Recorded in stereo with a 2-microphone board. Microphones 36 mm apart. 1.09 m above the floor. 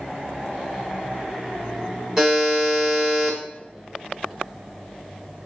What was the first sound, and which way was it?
A buzzer, 15° right (ahead or behind).